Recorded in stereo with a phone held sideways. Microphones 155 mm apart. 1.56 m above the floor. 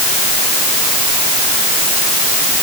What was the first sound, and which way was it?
Only background noise.